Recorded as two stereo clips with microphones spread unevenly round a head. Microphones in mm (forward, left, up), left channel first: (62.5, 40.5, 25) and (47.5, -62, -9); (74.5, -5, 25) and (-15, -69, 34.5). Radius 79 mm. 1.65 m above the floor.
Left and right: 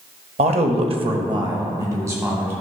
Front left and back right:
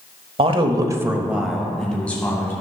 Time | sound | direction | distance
0.4 | a man speaking | 110° right | 0.8 m